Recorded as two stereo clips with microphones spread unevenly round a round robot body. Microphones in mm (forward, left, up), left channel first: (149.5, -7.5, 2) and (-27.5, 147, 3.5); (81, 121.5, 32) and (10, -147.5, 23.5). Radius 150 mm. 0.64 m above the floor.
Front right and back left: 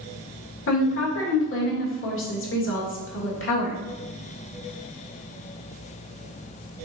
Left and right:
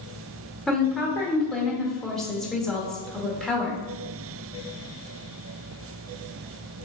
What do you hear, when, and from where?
0.7 s a woman speaking: 15° right, 1.6 m